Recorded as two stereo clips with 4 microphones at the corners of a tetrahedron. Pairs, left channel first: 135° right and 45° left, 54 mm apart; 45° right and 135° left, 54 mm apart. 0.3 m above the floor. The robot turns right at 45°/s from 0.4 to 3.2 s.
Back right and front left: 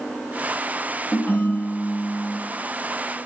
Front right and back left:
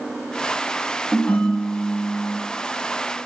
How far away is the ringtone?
About 0.5 m.